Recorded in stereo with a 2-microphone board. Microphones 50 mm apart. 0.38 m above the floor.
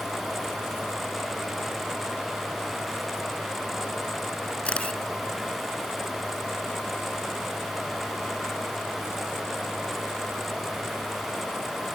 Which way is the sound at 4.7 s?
25° left (ahead or behind).